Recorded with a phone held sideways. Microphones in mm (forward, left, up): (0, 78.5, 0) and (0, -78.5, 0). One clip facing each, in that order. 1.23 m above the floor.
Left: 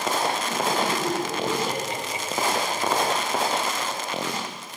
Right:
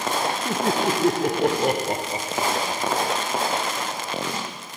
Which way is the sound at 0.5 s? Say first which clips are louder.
Right 2 dB; 55° right (ahead or behind).